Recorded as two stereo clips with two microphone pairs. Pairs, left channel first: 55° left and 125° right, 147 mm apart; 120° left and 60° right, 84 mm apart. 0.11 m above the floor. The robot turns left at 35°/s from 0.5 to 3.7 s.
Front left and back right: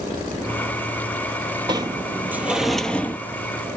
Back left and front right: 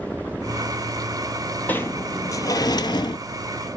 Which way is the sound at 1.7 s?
175° right.